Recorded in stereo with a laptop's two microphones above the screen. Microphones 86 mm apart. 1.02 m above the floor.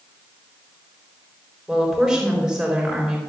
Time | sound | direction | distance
1.7 | a woman speaking | 5° right (ahead or behind) | 3.5 m